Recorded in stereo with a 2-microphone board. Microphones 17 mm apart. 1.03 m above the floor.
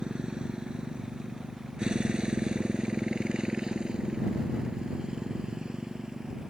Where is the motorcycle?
85° right; by 6.5 s 50° right (ahead or behind).